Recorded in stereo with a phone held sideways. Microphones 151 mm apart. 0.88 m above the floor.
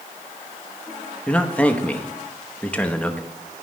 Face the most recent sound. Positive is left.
turn(degrees=10)  # may be behind; listen again after turning